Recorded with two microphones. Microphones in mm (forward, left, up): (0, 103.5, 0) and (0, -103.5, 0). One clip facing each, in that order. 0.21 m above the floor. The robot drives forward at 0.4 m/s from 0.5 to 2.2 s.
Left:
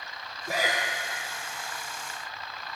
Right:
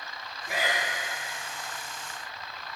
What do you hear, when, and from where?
0.5 s breathing: 40° left (ahead or behind), 3 m; by 0.8 s 45° left (ahead or behind), 3 m